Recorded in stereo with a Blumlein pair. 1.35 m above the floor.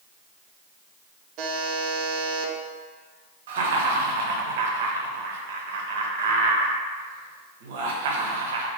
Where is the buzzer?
40° right, 0.6 m.